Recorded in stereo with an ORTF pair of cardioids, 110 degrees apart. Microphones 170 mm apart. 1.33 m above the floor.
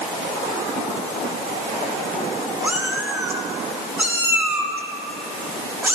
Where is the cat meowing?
10° right, 1.5 m.